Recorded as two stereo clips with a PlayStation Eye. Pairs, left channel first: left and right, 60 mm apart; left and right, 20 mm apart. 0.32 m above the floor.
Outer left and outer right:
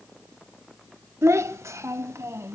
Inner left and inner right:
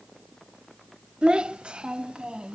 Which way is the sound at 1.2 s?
50° right (ahead or behind).